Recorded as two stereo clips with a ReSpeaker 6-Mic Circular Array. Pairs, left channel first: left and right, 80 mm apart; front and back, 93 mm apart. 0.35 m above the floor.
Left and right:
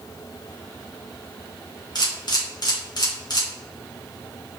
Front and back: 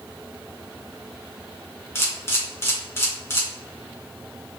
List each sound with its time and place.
1.9 s a camera shutter: 60° left, 2 m